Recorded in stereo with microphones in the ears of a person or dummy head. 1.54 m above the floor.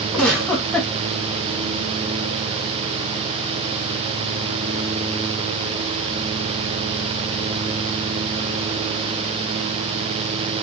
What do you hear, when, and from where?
0.1 s a giggle: centre (ahead or behind), 1.8 m